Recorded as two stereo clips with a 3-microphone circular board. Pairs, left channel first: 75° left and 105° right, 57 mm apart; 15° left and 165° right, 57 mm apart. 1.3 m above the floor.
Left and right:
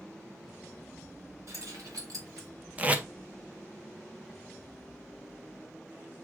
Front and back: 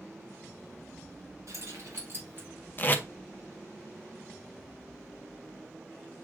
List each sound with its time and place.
1.5 s keys jangling: 135° right, 1.8 m; by 2.5 s 115° right, 2.5 m
2.8 s tape being pulled: 40° right, 0.7 m